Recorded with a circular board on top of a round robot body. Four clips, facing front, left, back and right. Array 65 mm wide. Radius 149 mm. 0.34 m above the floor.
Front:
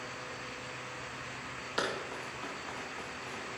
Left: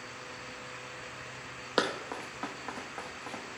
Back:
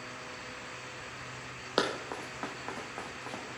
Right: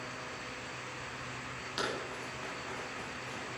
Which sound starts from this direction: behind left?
Running footsteps, at 1.8 s.